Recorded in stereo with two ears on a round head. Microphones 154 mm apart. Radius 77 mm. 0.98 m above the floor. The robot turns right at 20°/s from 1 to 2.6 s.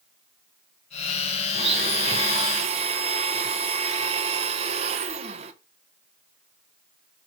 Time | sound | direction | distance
1.5 | a blender | 30° right (ahead or behind) | 0.7 m